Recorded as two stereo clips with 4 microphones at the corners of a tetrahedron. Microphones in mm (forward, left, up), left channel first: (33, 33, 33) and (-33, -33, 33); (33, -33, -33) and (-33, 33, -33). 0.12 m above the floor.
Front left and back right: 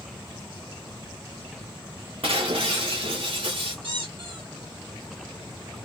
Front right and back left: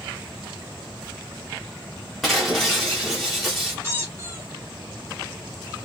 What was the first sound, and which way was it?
Breaking glass, 135° right.